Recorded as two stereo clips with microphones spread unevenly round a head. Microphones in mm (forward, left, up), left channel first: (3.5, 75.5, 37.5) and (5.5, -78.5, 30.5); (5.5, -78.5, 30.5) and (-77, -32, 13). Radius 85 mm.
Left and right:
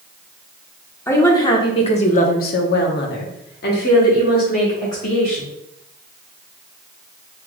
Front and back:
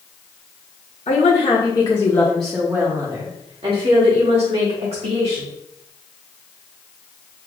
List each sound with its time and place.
1.1 s a woman speaking: 15° left, 1.0 m; by 5.5 s 135° left, 1.8 m